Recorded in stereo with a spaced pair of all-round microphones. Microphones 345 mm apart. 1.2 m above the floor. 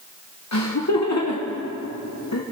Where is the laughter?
50° left (ahead or behind), 1.0 m.